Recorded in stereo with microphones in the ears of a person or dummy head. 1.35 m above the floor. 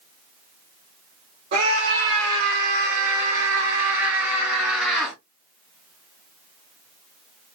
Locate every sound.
1.5 s a scream: 50° right (ahead or behind), 3 m; by 5.2 s 5° left (ahead or behind), 1.4 m